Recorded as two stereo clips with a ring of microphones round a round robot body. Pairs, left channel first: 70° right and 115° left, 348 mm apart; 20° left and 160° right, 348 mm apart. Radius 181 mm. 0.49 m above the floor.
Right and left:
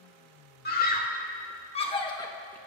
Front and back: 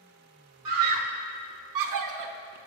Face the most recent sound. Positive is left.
turn(degrees=-150)